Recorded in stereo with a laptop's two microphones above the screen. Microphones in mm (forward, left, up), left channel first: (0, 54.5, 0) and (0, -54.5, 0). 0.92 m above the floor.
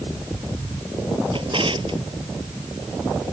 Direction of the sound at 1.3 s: 50° right (ahead or behind).